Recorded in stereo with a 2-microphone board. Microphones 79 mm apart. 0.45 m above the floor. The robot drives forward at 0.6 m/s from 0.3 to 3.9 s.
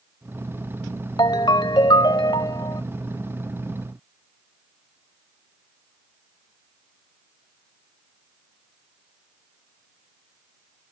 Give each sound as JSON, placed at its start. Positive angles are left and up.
{"t": 1.2, "sound": "a ringtone", "side_deg": 65}